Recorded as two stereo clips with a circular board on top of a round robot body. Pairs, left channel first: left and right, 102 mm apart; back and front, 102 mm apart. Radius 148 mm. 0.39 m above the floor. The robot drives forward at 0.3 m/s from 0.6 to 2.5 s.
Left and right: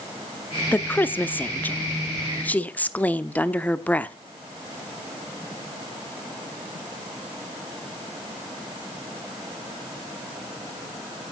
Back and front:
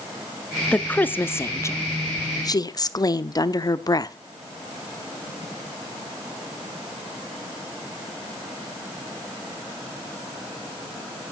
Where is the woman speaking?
125° left, 1.0 m; by 4.1 s 160° left, 1.3 m.